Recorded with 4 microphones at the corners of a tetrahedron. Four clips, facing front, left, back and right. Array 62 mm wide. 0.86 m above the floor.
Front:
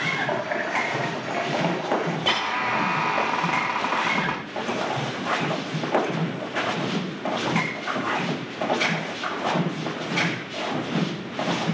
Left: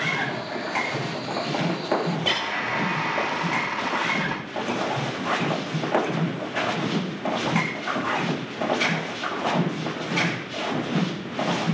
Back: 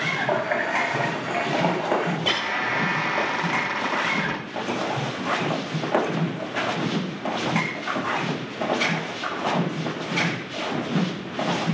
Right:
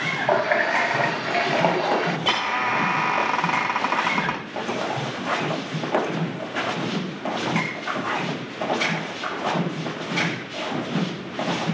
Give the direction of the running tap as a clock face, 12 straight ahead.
3 o'clock.